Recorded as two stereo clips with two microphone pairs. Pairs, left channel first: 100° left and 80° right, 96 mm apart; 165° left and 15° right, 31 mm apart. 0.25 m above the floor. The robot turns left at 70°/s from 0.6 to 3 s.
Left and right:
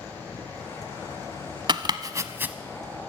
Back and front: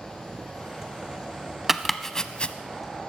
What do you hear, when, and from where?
1.7 s chopping: 95° right, 0.6 m; by 2.5 s 155° right, 0.6 m